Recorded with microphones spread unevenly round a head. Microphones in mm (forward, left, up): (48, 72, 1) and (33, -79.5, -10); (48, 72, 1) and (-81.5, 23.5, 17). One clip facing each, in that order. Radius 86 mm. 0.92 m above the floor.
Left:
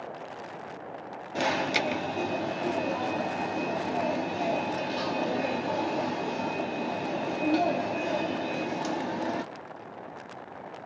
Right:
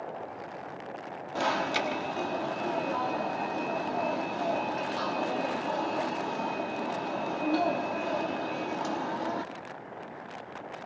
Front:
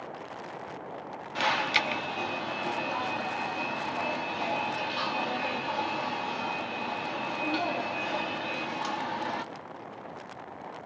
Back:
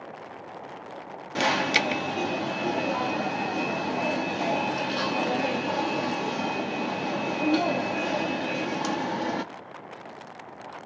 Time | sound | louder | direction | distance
1.4 | an alarm | left 1 dB, back 4 dB | 160° left | 1.2 m